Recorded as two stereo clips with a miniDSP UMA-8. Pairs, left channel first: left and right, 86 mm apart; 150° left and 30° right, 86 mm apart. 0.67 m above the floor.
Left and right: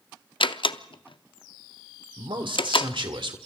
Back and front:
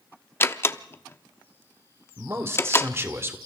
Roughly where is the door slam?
Left.